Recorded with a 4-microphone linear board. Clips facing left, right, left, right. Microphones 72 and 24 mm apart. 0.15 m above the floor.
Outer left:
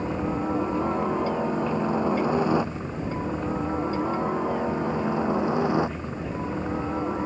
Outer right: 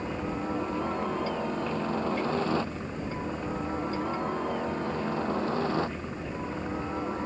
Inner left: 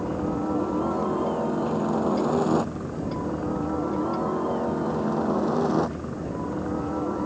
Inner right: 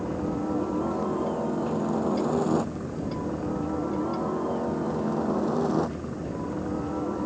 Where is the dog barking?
No dog barking in this recording.